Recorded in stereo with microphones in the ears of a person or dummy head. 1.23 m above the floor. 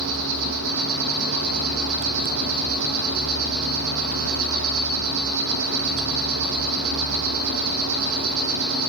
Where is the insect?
80° right, 7.5 m.